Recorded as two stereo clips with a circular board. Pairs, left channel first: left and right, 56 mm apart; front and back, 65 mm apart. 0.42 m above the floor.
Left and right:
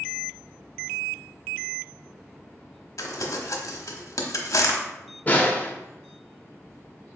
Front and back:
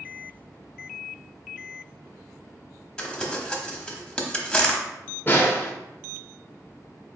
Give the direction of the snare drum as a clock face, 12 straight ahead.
11 o'clock.